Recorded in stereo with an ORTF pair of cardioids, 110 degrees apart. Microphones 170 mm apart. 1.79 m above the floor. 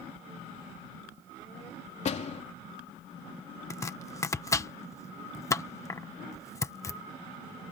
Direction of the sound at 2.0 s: 45° left.